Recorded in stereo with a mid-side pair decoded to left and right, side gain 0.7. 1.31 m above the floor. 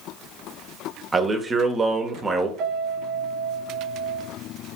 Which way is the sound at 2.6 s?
60° right.